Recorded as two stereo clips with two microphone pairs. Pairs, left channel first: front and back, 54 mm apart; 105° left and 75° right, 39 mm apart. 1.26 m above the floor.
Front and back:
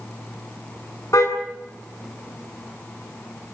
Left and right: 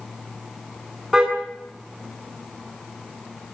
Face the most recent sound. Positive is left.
turn(degrees=-5)